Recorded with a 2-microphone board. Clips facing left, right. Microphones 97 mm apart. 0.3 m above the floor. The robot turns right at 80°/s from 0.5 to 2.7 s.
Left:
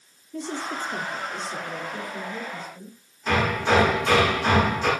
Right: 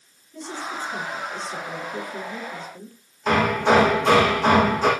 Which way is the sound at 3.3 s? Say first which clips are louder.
Right 4 dB; 75° right (ahead or behind).